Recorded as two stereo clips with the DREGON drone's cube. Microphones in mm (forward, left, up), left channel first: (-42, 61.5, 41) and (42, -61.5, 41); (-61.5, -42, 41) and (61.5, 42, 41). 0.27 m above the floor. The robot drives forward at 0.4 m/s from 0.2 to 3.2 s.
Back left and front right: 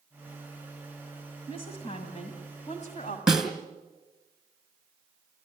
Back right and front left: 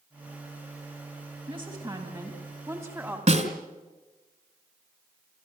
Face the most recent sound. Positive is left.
turn(degrees=30)